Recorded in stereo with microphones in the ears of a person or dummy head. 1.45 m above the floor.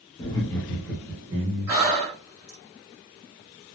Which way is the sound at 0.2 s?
25° left (ahead or behind).